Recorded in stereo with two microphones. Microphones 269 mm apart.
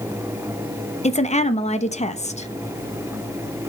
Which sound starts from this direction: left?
A woman speaking, at 1.0 s.